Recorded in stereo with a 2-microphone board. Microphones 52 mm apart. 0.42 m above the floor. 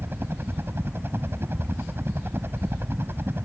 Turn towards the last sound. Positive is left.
turn(degrees=-45)  # may be behind; listen again after turning